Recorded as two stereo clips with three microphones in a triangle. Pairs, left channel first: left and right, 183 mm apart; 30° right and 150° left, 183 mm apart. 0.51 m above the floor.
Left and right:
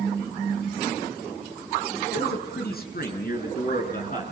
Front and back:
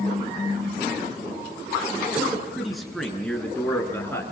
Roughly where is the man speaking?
Ahead left.